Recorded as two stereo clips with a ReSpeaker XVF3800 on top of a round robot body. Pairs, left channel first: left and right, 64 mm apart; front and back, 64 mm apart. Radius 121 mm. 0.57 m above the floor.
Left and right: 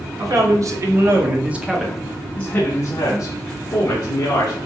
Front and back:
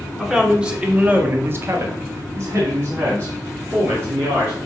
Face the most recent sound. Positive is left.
turn(degrees=125)